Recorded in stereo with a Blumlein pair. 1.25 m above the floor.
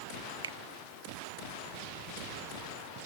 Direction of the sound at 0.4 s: 65° right.